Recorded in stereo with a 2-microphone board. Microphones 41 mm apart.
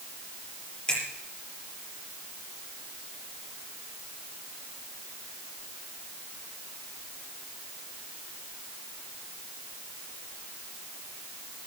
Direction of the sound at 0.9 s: 20° left (ahead or behind).